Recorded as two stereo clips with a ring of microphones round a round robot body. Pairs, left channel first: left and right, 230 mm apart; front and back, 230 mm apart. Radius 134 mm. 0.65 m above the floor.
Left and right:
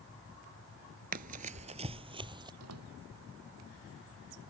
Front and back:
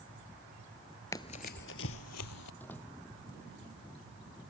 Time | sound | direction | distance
1.1 | running footsteps | 70° right | ?
2.6 | a door slam | 85° right | ?